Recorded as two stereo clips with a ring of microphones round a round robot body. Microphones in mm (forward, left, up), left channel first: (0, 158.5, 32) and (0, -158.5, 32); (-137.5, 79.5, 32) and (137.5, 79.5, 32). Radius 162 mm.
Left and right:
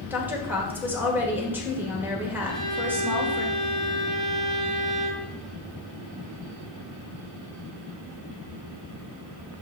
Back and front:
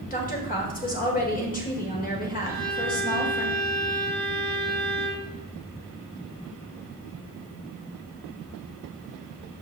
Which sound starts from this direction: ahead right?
A violin, at 2.4 s.